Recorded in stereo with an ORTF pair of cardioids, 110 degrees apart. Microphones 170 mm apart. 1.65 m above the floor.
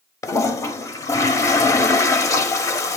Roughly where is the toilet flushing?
Ahead.